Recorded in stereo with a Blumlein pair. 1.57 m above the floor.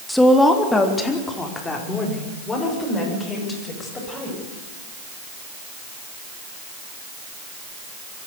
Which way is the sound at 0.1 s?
5° left.